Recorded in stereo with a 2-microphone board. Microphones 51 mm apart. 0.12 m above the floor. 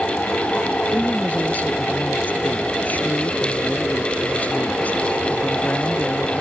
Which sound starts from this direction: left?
A woman speaking, at 0.9 s.